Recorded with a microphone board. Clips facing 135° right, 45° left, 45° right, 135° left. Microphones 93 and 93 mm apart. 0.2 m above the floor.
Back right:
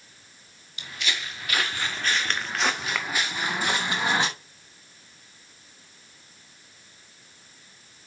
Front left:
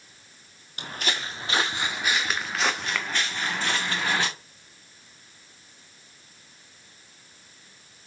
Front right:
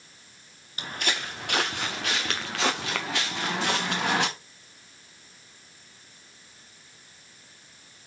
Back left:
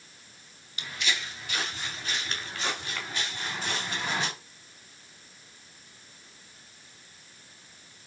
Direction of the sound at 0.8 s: 5° left.